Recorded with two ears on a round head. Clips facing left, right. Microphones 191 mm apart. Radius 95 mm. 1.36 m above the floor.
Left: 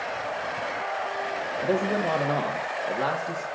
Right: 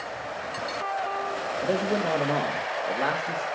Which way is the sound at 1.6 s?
Centre (ahead or behind).